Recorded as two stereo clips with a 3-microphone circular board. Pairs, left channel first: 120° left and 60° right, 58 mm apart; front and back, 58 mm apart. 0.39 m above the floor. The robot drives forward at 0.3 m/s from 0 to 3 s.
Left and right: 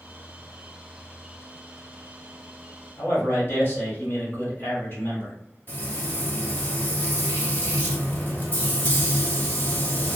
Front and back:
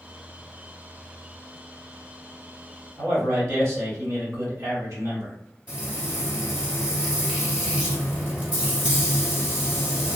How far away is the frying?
About 1.7 m.